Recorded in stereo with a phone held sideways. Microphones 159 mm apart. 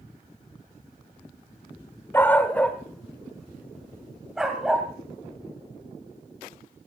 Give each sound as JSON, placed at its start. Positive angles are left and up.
{"t": 2.1, "sound": "a dog barking", "side_deg": 15, "distance_m": 1.4}